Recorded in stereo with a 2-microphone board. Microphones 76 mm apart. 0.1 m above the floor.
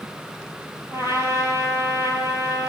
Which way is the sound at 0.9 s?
40° right (ahead or behind).